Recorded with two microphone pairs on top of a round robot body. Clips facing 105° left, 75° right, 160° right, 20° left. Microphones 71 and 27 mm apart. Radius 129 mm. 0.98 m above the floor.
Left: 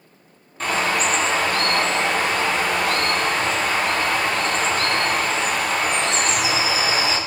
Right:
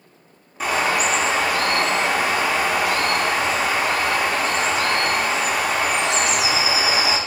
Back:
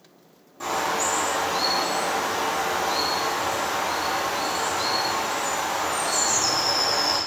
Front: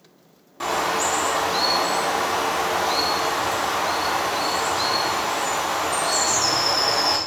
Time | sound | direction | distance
0.6 | a bird | straight ahead | 0.5 m